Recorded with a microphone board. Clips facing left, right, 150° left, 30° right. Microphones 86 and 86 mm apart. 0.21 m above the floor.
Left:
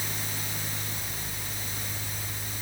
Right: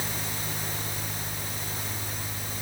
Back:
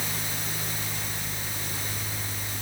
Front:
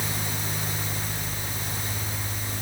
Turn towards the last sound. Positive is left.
No sound to turn to.